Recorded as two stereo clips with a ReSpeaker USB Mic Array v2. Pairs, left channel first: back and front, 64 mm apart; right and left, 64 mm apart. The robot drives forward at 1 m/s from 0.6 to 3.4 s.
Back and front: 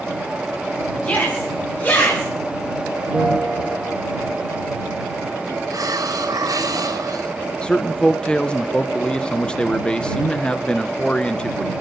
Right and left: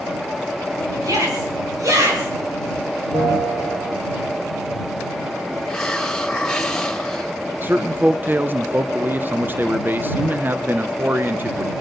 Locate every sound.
1.0 s a shout: 110° left, 6.5 m; by 2.3 s 120° left, 7 m
3.1 s a bell: 90° left, 5 m; by 4.0 s 95° left, 5 m
5.7 s a hiss: 5° right, 2.5 m
7.6 s a man speaking: 115° left, 0.5 m